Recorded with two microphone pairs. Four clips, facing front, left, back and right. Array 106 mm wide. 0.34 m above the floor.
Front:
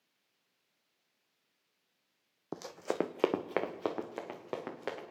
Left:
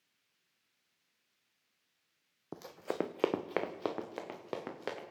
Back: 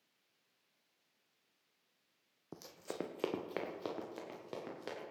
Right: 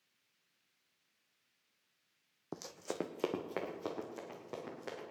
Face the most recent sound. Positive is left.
turn(degrees=45)